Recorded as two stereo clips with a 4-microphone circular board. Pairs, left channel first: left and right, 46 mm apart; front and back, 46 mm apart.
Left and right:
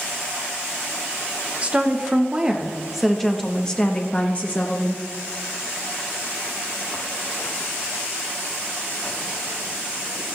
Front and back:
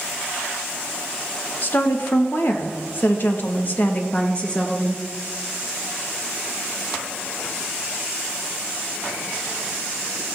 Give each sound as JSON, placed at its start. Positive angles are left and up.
{"t": 1.6, "sound": "a woman speaking", "azimuth_deg": -30, "distance_m": 1.6}